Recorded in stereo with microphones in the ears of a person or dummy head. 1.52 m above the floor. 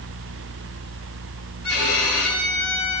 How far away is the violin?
About 8.5 m.